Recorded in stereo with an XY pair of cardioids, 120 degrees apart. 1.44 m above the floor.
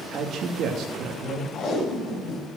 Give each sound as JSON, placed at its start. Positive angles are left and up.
{"t": 0.1, "sound": "a man speaking", "azimuth_deg": -60, "distance_m": 3.0}
{"t": 1.5, "sound": "tape being pulled", "azimuth_deg": 50, "distance_m": 7.0}